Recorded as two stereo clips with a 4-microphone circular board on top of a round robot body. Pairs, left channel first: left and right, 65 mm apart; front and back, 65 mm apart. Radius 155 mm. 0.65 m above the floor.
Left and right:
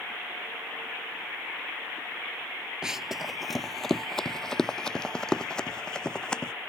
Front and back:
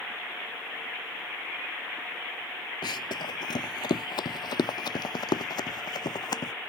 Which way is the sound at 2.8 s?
10° right.